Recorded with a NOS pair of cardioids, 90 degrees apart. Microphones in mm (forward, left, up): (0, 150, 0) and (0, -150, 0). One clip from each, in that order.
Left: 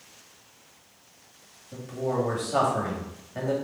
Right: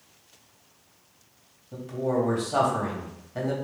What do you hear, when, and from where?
1.7 s a man speaking: 5° right, 1.9 m